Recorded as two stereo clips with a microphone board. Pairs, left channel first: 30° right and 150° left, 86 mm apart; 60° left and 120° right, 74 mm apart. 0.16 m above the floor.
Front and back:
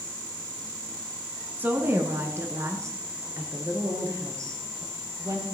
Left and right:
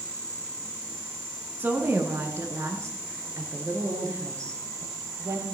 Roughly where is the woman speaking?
Behind.